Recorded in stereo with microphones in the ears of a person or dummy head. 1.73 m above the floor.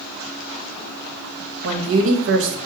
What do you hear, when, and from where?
1.6 s a woman speaking: 75° right (ahead or behind), 1.7 m